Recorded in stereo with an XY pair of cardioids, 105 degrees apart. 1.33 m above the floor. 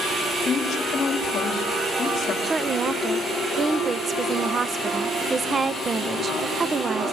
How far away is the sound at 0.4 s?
About 3.5 m.